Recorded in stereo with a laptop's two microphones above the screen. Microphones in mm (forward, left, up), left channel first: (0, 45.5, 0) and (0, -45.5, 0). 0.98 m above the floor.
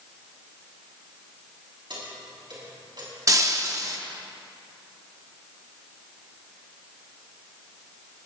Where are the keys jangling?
60° right (ahead or behind), 5.5 m; by 3.1 s 55° right (ahead or behind), 5.5 m.